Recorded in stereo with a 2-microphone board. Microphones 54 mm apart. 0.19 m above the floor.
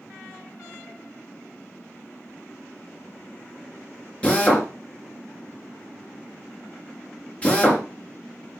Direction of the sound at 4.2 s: 25° left (ahead or behind).